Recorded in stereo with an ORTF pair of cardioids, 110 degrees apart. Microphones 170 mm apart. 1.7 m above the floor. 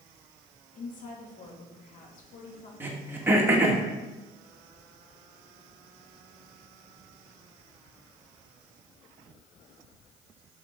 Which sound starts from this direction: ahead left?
A woman speaking, at 0.8 s.